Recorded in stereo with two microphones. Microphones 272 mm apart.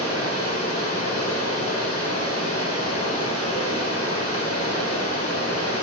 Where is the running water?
55° right (ahead or behind), 2.5 m.